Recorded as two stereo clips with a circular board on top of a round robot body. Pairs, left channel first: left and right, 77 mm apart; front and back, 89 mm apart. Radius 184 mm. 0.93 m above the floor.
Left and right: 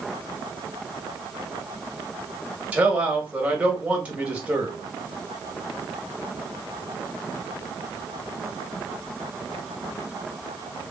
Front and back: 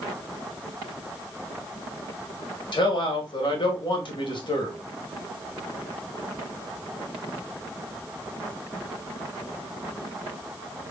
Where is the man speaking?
15° right, 1.7 m.